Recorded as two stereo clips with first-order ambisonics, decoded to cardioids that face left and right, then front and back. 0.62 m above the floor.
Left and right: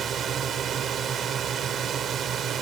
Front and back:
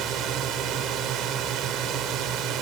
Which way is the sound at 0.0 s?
145° right.